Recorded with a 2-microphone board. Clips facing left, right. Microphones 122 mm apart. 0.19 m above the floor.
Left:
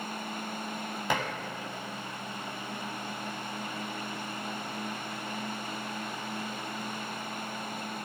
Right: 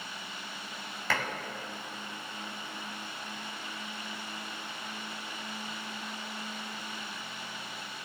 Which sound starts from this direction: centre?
Dishes clattering, at 1.1 s.